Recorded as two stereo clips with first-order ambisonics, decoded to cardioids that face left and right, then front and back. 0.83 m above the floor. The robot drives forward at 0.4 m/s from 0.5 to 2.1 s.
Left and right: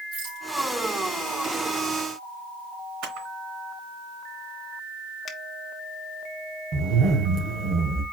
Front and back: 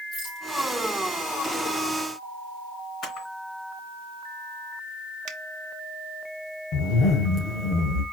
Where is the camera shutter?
75° right, 2.5 m.